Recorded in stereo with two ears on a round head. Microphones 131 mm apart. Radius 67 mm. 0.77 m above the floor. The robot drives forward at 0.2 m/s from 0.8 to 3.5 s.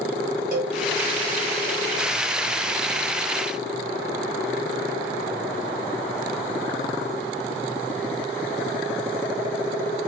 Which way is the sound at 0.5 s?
55° right (ahead or behind).